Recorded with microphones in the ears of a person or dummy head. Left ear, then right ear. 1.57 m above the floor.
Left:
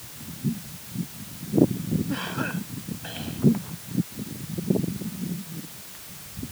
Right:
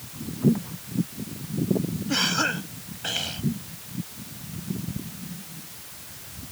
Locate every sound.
2.1 s a cough: 80° right